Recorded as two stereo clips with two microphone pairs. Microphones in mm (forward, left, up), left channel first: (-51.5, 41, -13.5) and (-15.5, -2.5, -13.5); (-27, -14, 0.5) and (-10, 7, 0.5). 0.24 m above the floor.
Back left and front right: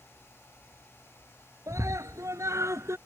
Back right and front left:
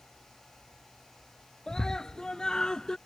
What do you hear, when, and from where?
1.7 s a scream: 65° right; by 3.0 s 70° right